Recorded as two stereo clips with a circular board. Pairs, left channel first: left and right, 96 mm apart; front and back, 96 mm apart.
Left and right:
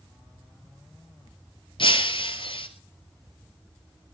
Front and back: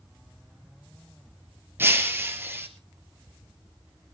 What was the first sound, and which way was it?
Breaking glass, 115° left.